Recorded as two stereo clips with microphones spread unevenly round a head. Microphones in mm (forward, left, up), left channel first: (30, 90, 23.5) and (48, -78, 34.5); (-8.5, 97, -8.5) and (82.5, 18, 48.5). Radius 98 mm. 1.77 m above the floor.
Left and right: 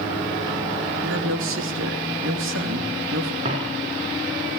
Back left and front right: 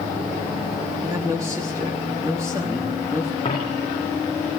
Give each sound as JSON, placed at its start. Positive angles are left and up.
{"t": 1.0, "sound": "a man speaking", "azimuth_deg": -110, "distance_m": 3.0}
{"t": 3.5, "sound": "a dropped coin", "azimuth_deg": -145, "distance_m": 4.0}